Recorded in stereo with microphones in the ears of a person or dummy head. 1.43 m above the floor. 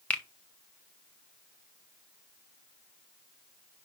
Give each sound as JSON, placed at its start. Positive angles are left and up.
{"t": 0.1, "sound": "a finger snap", "side_deg": 5, "distance_m": 0.5}